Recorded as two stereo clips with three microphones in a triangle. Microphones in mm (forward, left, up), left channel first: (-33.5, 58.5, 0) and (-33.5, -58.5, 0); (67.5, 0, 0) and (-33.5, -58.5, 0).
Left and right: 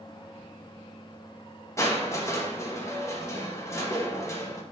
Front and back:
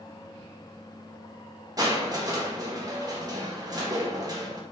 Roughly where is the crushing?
Behind left.